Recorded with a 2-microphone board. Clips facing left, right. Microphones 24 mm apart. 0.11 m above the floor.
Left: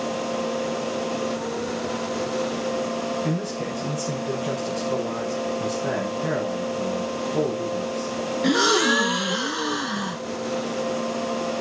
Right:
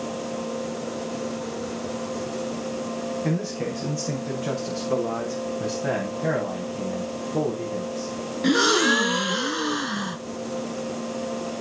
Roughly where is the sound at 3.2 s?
Right.